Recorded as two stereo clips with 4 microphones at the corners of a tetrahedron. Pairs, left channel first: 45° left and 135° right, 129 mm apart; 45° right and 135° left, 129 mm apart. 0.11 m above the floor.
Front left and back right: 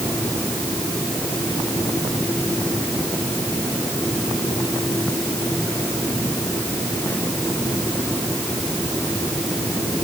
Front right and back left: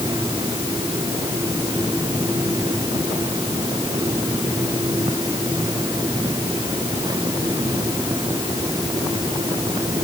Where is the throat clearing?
No throat clearing in this recording.